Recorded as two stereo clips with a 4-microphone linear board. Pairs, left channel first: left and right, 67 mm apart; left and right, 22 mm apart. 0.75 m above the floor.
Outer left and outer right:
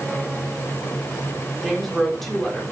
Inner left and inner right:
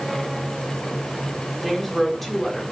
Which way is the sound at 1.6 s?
5° left (ahead or behind).